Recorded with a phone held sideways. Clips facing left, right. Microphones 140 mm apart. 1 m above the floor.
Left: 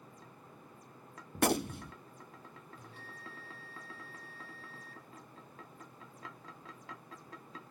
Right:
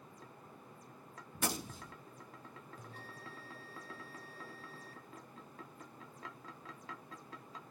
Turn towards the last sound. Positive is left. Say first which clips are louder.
# even
turn(degrees=-40)  # may be behind; listen again after turning